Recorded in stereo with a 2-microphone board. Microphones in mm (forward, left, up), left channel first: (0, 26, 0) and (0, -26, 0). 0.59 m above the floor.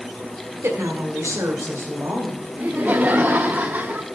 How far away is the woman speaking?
About 1.3 m.